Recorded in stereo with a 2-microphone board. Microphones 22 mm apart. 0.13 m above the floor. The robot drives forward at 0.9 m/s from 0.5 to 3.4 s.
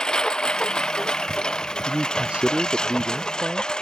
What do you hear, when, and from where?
0.0 s a lawn mower: 40° left (ahead or behind)
1.9 s a man speaking: 60° right (ahead or behind); by 3.7 s 50° right (ahead or behind)